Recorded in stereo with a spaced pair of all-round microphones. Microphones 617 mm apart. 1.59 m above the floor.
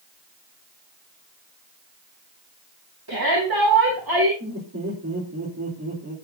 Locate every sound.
3.1 s a shout: 40° right (ahead or behind), 3 m
4.4 s laughter: 25° right (ahead or behind), 4.5 m